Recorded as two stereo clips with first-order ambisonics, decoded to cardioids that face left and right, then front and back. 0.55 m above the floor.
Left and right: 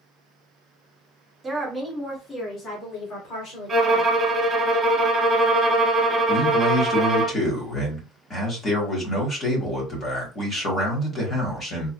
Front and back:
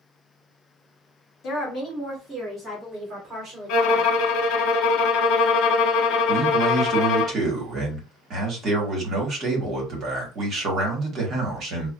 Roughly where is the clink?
No clink in this recording.